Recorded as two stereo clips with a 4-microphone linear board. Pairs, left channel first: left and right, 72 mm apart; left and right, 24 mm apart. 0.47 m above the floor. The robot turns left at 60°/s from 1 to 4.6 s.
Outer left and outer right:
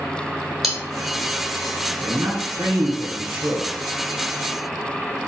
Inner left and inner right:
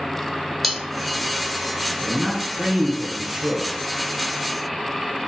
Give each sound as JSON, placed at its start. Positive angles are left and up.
{"t": 0.6, "sound": "cutlery clinking", "side_deg": 0, "distance_m": 1.0}
{"t": 2.0, "sound": "a man speaking", "azimuth_deg": -60, "distance_m": 1.5}